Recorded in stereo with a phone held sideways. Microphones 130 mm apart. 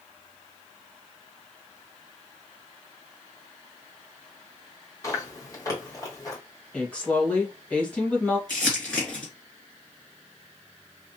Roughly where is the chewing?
Left.